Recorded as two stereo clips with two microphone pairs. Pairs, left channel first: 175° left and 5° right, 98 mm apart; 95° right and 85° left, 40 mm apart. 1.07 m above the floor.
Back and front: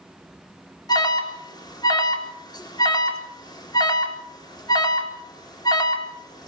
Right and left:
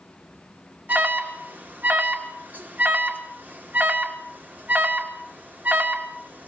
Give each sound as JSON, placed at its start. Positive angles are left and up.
{"t": 0.9, "sound": "an alarm", "azimuth_deg": 130, "distance_m": 3.0}